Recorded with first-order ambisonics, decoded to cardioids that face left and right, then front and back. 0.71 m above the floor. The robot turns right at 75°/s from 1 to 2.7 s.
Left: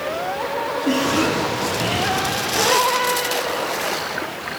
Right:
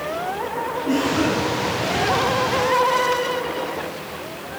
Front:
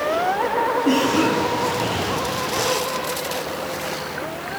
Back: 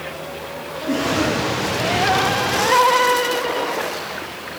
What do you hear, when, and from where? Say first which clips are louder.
0.8 s a cough: left 1 dB, front 2 dB; 35° left, 4 m; by 2.2 s 125° left, 4 m